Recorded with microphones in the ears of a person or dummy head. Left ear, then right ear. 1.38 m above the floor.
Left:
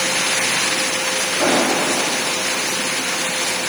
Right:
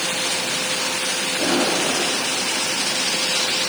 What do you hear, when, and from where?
1.4 s an explosion: 60° left (ahead or behind), 7.5 m